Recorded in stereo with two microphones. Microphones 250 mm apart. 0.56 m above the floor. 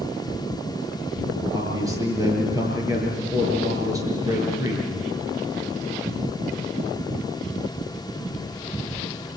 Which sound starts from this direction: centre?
A man speaking, at 1.5 s.